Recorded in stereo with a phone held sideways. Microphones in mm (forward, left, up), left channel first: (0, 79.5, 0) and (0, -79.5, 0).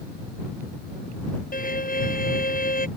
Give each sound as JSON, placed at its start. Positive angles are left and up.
{"t": 1.5, "sound": "a violin", "side_deg": 55}